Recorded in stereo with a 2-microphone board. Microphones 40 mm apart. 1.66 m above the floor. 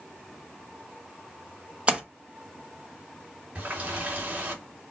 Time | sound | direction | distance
1.9 | a splash | 30° right (ahead or behind) | 1.1 m
3.5 | a running tap | 35° right (ahead or behind) | 3.5 m